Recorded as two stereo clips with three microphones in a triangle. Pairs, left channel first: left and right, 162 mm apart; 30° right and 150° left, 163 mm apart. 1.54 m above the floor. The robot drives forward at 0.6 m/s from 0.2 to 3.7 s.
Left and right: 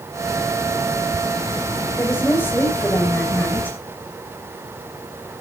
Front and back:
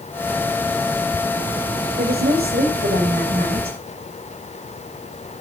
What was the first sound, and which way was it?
A woman speaking, 165° left.